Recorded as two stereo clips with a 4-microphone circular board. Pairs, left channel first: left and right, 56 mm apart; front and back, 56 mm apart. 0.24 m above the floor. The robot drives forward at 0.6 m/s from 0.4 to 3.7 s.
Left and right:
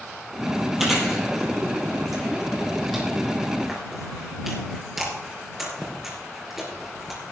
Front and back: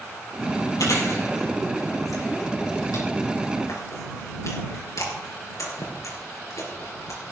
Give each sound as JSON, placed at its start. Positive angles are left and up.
{"t": 0.8, "sound": "chewing", "azimuth_deg": -5, "distance_m": 5.5}